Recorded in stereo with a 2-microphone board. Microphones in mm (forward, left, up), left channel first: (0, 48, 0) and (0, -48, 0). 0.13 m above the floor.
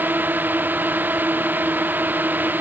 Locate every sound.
0.0 s a drone: 20° right (ahead or behind)